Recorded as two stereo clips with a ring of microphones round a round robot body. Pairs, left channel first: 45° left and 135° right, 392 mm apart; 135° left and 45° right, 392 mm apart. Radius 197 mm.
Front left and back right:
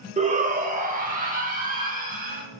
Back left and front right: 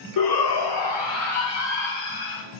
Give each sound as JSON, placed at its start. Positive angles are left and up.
{"t": 0.2, "sound": "a shout", "azimuth_deg": 155, "distance_m": 1.2}